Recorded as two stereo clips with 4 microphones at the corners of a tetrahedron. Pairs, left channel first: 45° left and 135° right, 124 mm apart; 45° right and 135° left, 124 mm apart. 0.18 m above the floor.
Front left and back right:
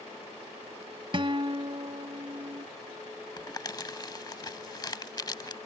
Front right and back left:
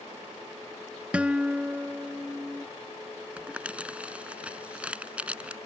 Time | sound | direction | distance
1.1 | a guitar | 150° right | ?
3.4 | crumpling | 65° left | ?